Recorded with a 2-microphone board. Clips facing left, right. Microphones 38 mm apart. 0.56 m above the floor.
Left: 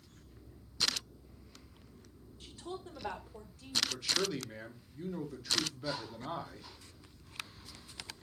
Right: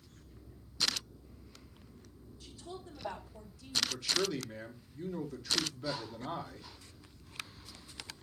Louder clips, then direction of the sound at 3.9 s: Right 1 dB; 5° left (ahead or behind).